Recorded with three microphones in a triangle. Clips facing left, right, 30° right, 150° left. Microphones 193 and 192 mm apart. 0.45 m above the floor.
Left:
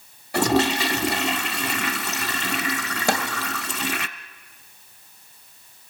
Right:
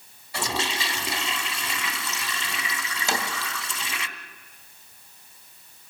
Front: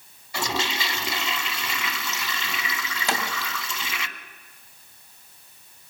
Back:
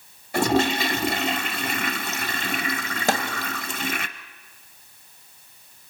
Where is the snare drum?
115° left, 2.5 m.